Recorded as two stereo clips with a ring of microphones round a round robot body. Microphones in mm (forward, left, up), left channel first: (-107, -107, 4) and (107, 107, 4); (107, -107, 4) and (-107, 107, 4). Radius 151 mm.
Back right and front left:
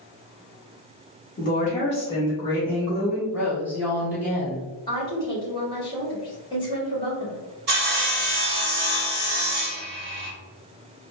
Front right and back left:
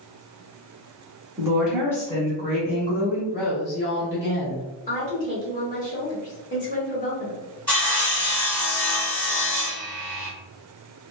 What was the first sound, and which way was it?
A woman speaking, 155° right.